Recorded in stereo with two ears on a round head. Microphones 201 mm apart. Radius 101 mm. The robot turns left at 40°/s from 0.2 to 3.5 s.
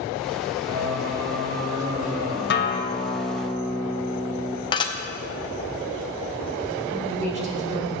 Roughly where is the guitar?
Ahead left.